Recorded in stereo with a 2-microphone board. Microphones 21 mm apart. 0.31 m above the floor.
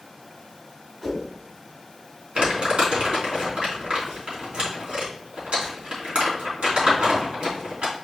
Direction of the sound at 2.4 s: 65° right (ahead or behind).